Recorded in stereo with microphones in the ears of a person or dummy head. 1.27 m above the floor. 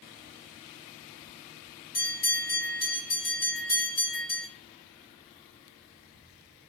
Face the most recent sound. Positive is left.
turn(degrees=15)  # may be behind; listen again after turning